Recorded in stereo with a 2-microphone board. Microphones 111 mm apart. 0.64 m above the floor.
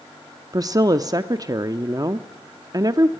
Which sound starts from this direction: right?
A woman speaking, at 0.5 s.